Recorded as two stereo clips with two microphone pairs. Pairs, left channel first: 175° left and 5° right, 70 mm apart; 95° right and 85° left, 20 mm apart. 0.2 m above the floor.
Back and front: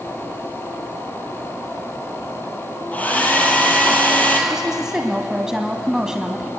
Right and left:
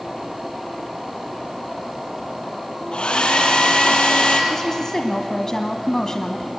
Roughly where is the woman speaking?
Right.